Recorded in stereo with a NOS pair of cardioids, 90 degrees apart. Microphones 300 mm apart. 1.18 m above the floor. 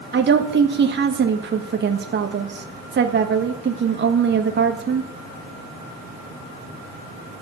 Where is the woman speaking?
35° right, 1.5 m.